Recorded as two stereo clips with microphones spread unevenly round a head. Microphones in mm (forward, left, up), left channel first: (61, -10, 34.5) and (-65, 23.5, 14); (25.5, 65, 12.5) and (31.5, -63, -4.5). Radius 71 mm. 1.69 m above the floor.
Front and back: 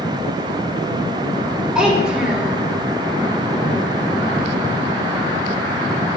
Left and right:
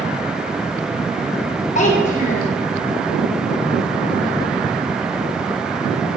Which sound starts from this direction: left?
A child speaking, at 1.8 s.